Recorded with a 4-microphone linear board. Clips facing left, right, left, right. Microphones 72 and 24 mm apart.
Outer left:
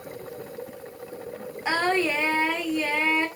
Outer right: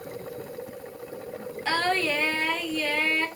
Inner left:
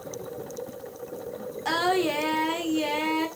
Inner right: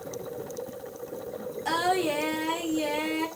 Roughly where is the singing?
Centre.